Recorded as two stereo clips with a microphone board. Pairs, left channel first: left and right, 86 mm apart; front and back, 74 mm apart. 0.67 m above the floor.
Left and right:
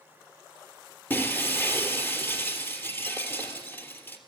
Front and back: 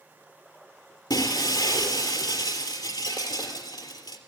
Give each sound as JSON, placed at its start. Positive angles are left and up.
{"t": 1.1, "sound": "breaking glass", "azimuth_deg": 20, "distance_m": 3.5}